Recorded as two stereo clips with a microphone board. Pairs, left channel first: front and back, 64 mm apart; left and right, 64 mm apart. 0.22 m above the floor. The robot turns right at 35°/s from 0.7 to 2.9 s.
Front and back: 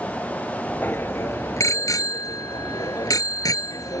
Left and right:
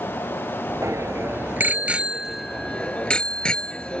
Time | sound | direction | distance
0.8 | a bicycle bell | 60° right | ?